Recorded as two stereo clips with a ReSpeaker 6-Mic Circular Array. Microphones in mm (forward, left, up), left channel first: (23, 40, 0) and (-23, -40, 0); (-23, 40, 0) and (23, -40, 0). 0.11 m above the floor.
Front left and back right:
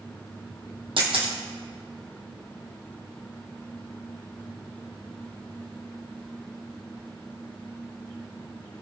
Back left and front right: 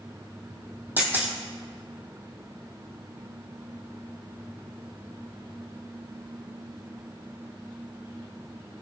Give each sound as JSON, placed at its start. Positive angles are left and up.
{"t": 1.0, "sound": "a camera shutter", "azimuth_deg": -125, "distance_m": 2.5}